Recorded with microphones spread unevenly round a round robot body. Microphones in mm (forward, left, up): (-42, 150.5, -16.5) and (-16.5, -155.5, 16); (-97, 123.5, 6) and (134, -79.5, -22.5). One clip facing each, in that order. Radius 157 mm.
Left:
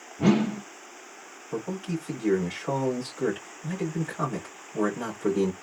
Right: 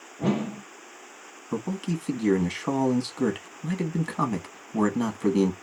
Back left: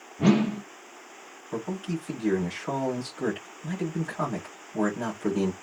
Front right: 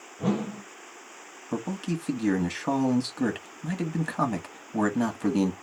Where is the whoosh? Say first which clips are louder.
Left 4 dB, back left 7 dB; 130° left, 0.5 m.